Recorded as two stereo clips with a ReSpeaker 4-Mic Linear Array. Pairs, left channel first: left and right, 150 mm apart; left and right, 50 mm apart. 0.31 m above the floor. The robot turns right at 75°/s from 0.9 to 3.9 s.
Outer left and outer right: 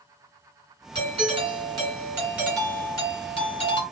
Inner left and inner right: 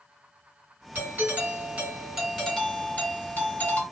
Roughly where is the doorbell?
Behind right.